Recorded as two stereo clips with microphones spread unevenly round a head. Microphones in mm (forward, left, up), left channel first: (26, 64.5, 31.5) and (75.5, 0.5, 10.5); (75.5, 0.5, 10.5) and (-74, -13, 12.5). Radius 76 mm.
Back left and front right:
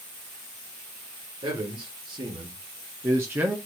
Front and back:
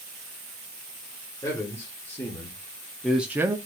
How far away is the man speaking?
About 1.6 m.